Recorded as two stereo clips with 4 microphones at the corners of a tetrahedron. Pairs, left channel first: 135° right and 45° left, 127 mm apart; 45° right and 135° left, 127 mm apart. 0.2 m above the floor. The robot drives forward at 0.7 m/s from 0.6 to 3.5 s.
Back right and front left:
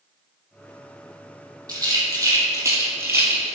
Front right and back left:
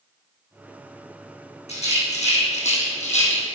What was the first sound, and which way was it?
A rattle, 15° right.